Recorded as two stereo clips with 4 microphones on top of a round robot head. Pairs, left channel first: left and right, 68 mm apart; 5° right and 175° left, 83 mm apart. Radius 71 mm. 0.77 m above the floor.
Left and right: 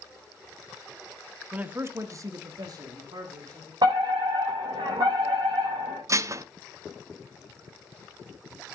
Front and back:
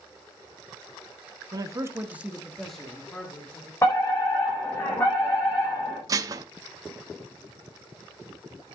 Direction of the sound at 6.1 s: 130° right.